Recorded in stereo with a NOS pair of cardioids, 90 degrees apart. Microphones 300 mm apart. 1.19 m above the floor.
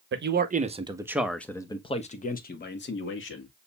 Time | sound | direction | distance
0.1 | a man speaking | 40° right | 1.1 m